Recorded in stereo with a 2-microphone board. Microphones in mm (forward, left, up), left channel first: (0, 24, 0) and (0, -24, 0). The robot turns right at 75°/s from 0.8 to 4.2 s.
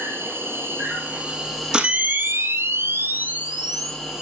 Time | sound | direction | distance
0.0 | an insect | 65° right | 3.5 m
1.7 | a camera shutter | 160° right | 1.6 m